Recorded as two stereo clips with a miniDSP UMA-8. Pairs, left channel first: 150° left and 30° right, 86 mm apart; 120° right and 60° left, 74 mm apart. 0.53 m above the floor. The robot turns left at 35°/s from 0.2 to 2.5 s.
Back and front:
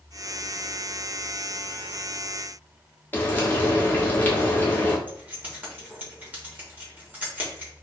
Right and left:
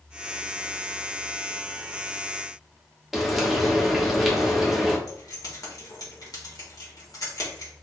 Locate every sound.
3.1 s frying: 145° left, 0.9 m
5.1 s keys jangling: 100° right, 1.3 m